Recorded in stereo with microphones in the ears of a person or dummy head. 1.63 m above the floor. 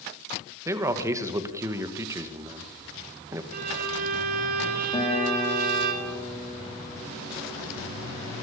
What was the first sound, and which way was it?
A man speaking, 15° right (ahead or behind).